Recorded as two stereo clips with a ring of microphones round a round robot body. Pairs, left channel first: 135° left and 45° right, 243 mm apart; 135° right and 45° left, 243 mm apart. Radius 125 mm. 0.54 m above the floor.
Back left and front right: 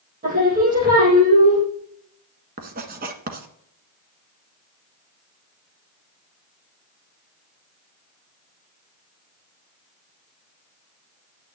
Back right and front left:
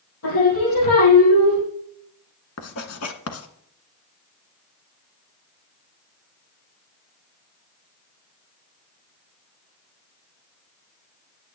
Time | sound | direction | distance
0.2 | singing | 100° right | 5.5 m
2.6 | writing | 100° right | 1.5 m